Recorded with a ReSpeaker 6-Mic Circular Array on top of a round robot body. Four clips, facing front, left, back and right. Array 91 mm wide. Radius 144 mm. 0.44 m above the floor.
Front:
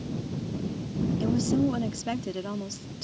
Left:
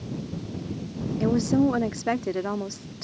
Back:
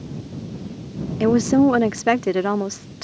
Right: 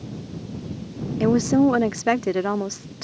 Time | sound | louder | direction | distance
1.2 | a woman speaking | right 4 dB, back 11 dB | 155° right | ?